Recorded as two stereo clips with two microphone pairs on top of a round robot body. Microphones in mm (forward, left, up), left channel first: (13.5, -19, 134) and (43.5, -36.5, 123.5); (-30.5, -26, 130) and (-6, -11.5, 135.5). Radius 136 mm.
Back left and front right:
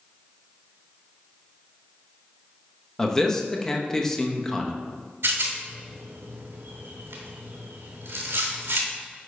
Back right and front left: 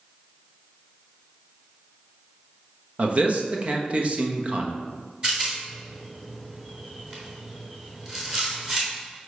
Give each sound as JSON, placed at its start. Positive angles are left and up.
{"t": 3.0, "sound": "a man speaking", "azimuth_deg": 65, "distance_m": 1.1}
{"t": 5.2, "sound": "a rattle", "azimuth_deg": -30, "distance_m": 1.2}